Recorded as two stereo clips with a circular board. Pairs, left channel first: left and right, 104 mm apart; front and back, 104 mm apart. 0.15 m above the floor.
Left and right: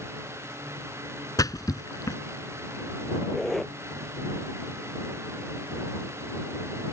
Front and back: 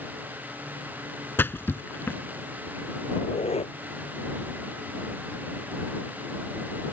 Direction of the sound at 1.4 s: 60° left.